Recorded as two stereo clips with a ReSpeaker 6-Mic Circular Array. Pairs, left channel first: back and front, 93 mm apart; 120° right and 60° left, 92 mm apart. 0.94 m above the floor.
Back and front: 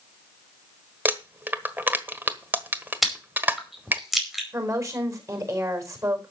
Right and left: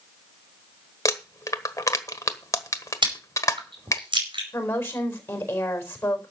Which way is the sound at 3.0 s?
90° left.